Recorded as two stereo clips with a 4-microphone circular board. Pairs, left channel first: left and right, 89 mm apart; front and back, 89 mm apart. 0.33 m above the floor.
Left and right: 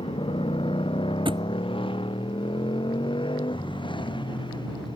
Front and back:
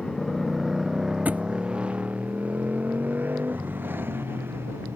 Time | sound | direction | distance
0.0 | a motorcycle | 85° left | ?
1.2 | a thud | 110° right | ?